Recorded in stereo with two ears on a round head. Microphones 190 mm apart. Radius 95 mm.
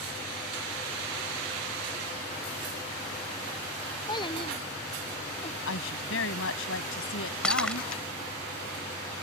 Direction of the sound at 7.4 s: 5° left (ahead or behind).